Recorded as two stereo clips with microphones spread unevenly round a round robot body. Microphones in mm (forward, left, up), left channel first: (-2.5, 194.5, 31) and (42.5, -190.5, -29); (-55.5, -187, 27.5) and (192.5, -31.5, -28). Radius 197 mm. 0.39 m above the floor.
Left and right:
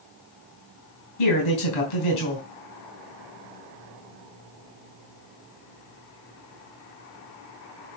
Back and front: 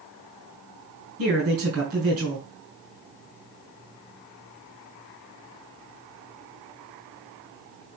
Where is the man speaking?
95° left, 4.5 m.